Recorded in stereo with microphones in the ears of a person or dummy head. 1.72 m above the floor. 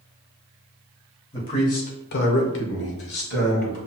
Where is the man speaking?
25° left (ahead or behind), 1.2 m; by 3.8 s 45° left (ahead or behind), 1.7 m.